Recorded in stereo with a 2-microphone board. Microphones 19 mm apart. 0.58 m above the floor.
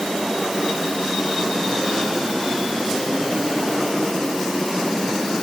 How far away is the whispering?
No whispering in this recording.